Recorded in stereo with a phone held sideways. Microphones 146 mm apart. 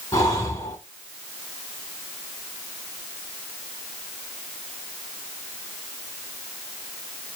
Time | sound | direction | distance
0.1 | breathing | 25° left (ahead or behind) | 1.2 m